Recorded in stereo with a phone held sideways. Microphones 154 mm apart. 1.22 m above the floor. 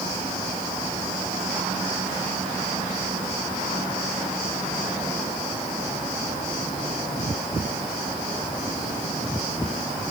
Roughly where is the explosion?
I don't hear an explosion.